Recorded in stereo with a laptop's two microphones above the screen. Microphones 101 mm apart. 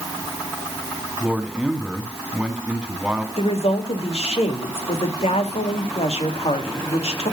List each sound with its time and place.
1.2 s a man speaking: 10° right (ahead or behind), 2.5 m
3.4 s a woman speaking: 70° left (ahead or behind), 2.5 m